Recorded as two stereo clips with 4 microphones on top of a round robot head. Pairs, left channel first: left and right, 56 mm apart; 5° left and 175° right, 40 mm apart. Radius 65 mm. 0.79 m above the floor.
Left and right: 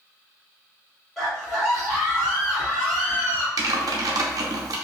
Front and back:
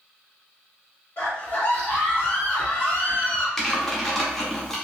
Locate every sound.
1.2 s a scream: 10° left, 1.4 m
3.6 s typing on a keyboard: 75° right, 0.6 m